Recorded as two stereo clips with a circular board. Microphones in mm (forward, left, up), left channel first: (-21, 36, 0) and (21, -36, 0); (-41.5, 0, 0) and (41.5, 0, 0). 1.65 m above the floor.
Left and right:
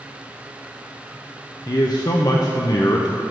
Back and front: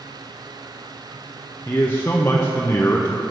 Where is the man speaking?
125° left, 0.6 m.